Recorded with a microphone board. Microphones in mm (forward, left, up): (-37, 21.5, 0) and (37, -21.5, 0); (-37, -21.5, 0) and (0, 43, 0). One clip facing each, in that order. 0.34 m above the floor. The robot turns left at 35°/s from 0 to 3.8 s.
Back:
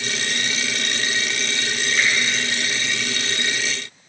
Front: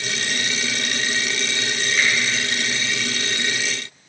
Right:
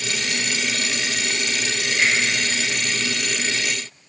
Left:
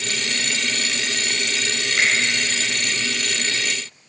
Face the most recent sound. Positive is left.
turn(degrees=-10)